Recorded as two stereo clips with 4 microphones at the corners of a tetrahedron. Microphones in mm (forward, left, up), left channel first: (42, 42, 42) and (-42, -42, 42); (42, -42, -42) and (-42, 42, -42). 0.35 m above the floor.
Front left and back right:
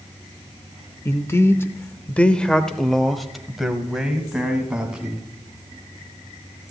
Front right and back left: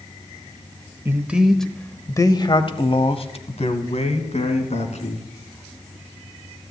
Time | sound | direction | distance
1.1 | a man speaking | 90° left | 1.0 m